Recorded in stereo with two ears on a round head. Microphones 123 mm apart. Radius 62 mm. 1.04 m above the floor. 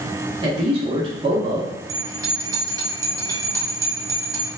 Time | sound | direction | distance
0.4 | a man speaking | 35° right (ahead or behind) | 0.8 m
1.9 | a bell | 25° right (ahead or behind) | 0.7 m